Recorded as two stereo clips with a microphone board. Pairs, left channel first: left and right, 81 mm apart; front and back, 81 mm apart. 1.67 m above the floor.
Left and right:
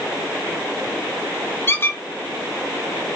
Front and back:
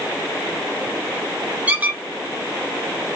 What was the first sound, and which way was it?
A squeak, 125° left.